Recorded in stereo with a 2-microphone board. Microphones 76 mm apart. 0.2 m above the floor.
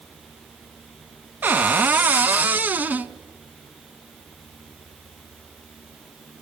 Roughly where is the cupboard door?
Right.